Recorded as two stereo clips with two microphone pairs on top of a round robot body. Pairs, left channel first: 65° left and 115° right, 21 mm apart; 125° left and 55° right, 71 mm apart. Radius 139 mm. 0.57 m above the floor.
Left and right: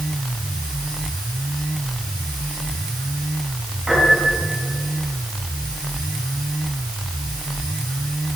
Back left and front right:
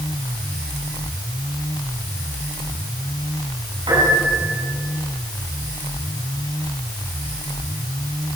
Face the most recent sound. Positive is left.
turn(degrees=-55)